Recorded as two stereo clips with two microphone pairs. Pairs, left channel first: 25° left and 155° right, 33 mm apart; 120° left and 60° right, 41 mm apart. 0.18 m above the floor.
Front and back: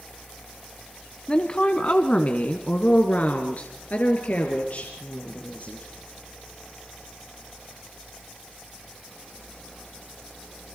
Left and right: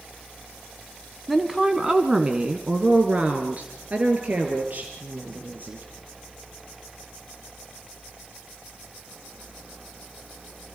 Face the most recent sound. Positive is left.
turn(degrees=-15)